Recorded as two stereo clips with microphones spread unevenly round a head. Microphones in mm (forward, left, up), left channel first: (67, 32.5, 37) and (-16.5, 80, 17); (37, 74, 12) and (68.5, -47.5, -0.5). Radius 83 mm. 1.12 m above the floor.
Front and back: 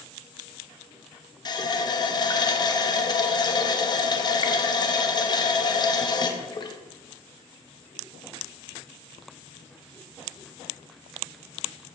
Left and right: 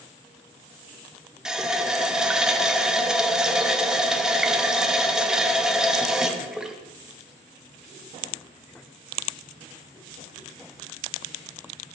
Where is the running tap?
10° left, 0.9 m.